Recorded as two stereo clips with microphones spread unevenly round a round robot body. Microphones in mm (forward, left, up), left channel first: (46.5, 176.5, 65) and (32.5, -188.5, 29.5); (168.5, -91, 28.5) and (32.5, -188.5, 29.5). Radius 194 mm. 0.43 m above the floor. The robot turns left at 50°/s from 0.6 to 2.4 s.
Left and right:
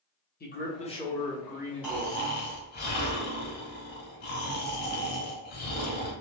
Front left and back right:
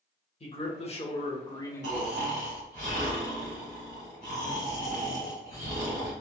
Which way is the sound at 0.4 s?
30° left.